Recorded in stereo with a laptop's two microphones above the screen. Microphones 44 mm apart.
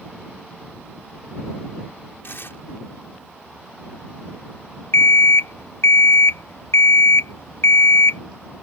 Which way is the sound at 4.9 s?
75° left (ahead or behind).